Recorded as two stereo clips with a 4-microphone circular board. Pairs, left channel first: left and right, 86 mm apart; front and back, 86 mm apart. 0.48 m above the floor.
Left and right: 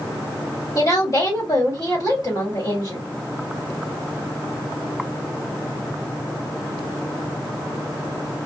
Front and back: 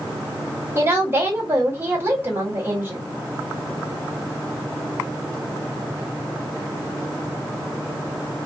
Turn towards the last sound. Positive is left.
turn(degrees=120)